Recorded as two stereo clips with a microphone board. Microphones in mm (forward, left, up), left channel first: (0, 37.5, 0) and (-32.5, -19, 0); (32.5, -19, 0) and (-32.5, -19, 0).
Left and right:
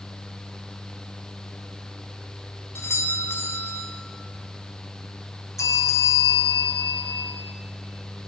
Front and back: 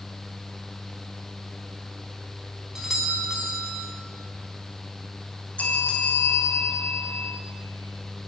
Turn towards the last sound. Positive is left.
turn(degrees=60)